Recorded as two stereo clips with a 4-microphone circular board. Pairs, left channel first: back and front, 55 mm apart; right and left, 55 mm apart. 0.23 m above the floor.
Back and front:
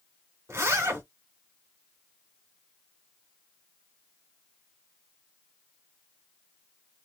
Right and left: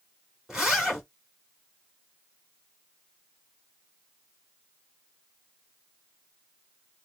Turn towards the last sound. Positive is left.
turn(degrees=15)